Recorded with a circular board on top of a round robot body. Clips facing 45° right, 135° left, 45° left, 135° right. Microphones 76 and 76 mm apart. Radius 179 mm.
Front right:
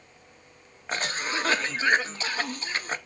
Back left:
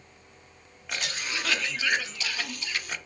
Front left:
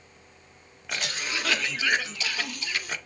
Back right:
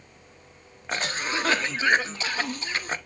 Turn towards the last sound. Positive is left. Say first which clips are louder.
# front right 4 dB, back right 4 dB
turn(degrees=-90)